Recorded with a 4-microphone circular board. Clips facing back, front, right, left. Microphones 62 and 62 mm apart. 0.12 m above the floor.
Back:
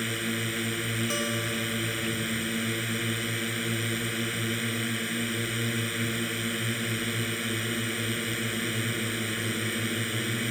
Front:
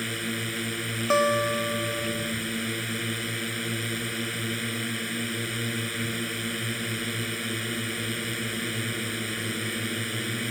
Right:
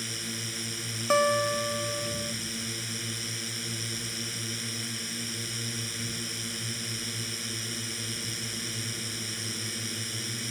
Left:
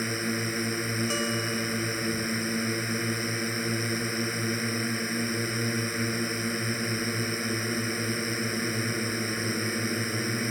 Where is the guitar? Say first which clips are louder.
Front 8 dB, right 5 dB; 40° right.